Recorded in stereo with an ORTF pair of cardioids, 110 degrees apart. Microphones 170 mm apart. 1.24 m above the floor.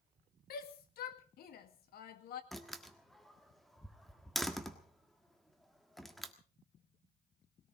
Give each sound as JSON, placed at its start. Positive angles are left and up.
{"t": 0.5, "sound": "a shout", "azimuth_deg": 65, "distance_m": 2.0}
{"t": 2.5, "sound": "a door slam", "azimuth_deg": 0, "distance_m": 1.5}